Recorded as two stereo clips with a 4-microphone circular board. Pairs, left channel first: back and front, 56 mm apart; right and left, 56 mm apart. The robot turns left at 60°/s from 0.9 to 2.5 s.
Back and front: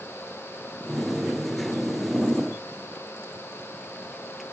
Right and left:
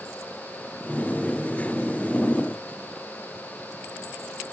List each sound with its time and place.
Only background noise.